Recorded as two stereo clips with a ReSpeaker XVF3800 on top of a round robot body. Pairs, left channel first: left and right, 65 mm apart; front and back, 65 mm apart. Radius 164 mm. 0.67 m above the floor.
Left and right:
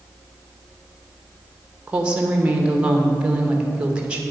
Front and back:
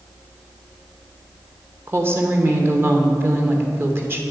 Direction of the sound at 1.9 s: 155° right.